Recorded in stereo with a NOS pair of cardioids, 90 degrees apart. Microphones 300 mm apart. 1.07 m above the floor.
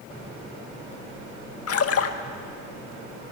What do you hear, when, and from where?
1.7 s a splash: 50° left, 1.6 m